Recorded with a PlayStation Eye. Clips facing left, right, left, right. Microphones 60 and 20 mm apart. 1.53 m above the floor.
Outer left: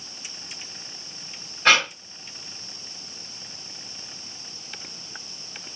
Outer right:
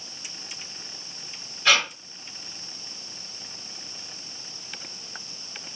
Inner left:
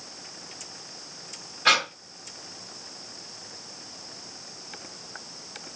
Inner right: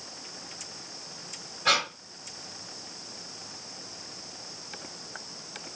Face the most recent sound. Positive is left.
turn(degrees=50)  # may be behind; listen again after turning